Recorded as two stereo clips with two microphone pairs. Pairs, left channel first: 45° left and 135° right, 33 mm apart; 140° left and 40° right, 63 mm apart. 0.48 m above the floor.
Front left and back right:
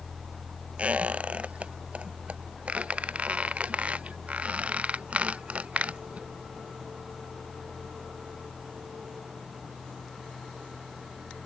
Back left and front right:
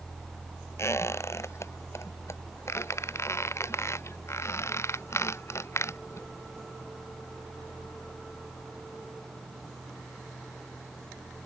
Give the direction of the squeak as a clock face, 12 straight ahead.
6 o'clock.